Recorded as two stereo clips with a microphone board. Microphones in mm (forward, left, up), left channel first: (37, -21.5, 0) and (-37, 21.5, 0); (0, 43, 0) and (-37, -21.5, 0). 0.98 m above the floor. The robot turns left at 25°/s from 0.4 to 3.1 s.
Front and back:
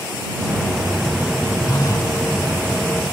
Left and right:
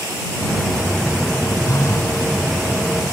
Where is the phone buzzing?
20° left; by 2.2 s 5° left.